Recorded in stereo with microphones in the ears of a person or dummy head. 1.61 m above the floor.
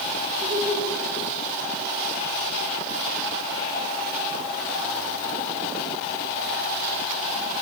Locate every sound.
0.4 s laughter: 45° right (ahead or behind), 6.5 m